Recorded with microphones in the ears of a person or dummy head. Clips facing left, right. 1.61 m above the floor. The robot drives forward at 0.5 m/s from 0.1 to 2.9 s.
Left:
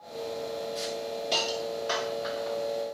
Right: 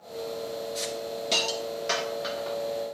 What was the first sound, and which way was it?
A hiss, 25° right (ahead or behind).